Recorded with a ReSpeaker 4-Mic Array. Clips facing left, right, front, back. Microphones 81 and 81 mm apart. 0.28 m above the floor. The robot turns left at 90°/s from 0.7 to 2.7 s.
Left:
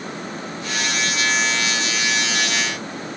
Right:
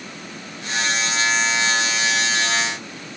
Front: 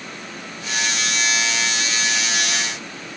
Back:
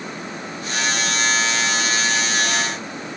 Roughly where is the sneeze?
I don't hear a sneeze.